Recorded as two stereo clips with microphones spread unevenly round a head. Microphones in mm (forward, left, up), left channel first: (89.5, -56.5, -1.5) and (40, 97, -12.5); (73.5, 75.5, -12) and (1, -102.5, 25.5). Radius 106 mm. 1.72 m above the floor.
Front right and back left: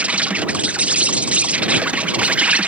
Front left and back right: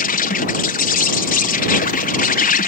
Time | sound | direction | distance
0.0 | an insect | 25° left | ?